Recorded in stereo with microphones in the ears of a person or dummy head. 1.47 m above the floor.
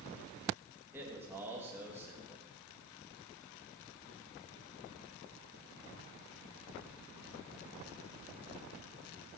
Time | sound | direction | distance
0.9 | a man speaking | 10° right (ahead or behind) | 2.5 m